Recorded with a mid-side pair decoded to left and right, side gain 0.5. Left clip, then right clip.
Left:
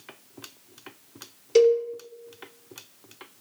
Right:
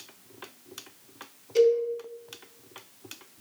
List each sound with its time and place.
1.6 s a cowbell: 70° left, 0.6 m